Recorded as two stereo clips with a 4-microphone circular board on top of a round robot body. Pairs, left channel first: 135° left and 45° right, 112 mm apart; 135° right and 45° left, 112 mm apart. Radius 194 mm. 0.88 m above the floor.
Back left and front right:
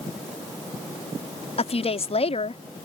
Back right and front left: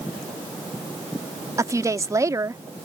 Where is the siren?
I don't hear a siren.